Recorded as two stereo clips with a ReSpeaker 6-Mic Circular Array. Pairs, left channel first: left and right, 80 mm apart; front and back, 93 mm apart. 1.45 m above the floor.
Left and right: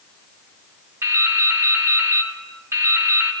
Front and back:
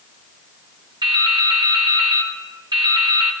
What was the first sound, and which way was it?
Dripping, 145° right.